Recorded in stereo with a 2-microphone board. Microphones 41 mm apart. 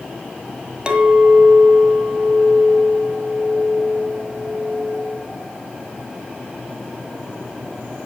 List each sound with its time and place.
0.9 s a clink: 25° right (ahead or behind), 1.8 m